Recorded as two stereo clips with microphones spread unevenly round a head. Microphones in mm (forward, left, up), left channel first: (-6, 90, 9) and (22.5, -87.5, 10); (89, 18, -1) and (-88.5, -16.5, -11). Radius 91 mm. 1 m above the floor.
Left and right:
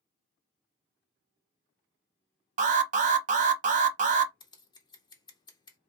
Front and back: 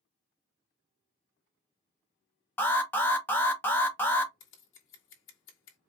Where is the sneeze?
No sneeze in this recording.